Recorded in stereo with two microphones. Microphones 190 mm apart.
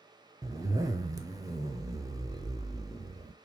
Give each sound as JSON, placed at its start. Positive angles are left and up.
{"t": 0.4, "sound": "a zipper", "side_deg": -15, "distance_m": 0.5}